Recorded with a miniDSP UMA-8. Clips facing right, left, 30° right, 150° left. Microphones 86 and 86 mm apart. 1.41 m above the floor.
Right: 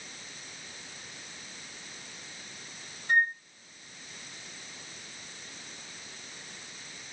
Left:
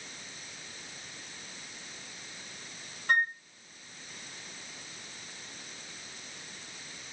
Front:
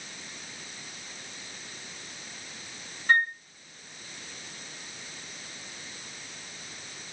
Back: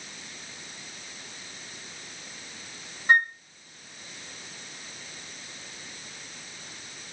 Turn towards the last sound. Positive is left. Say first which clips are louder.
# right 2 dB, back 2 dB
turn(degrees=80)